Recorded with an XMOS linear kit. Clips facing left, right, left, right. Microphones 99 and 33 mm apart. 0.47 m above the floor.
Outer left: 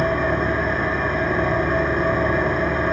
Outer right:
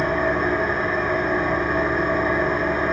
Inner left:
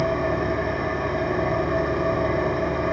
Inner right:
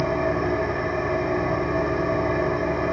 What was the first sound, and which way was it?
An engine running, 75° left (ahead or behind).